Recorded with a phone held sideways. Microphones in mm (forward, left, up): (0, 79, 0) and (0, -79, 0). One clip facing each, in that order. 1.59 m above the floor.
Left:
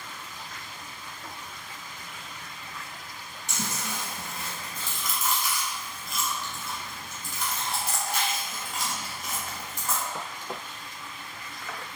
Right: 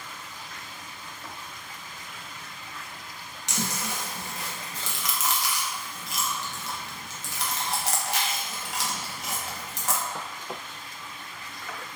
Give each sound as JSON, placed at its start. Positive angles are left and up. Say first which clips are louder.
{"t": 3.5, "sound": "chewing", "louder": "right 2 dB", "side_deg": -70, "distance_m": 0.8}